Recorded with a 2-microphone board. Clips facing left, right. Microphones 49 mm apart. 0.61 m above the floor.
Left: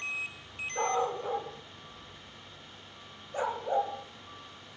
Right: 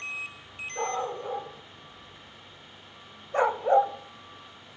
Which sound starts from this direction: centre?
A dog barking, at 0.8 s.